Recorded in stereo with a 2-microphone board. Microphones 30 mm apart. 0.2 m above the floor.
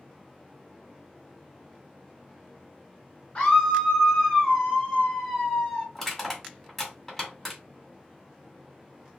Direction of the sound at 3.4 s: 40° left (ahead or behind).